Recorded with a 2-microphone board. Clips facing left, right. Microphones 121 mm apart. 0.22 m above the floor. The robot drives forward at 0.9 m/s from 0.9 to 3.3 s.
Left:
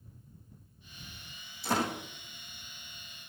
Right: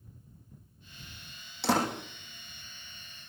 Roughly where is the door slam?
Right.